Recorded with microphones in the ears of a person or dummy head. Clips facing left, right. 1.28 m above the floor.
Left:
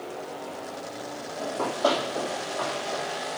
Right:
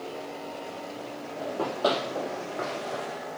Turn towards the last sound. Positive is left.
turn(degrees=-35)  # may be behind; listen again after turning